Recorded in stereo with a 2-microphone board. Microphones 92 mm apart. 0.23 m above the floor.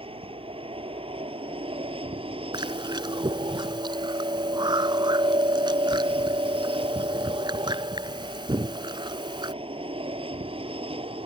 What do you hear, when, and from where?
0.0 s an aircraft: 70° right (ahead or behind)
2.5 s chewing: 55° right (ahead or behind)